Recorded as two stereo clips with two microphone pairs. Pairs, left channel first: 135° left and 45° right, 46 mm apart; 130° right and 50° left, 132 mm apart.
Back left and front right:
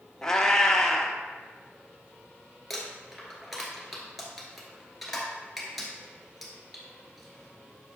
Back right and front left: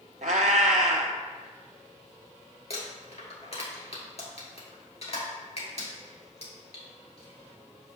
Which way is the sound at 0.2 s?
60° left.